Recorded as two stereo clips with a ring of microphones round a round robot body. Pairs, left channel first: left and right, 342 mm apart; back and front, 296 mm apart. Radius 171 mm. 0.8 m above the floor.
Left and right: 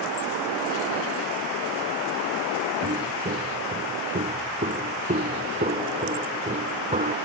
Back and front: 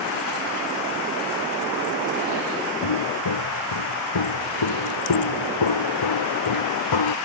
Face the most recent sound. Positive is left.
turn(degrees=-160)